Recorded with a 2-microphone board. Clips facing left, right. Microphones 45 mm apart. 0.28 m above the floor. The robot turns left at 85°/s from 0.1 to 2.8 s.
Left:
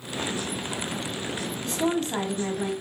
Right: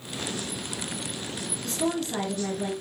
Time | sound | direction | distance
1.6 | a woman speaking | 170° left | 1.5 m